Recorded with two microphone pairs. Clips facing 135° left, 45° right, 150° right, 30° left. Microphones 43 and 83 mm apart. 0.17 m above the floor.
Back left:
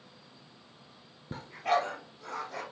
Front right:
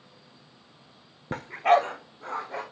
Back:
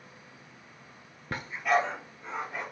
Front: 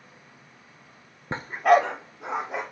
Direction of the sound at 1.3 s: 35° right.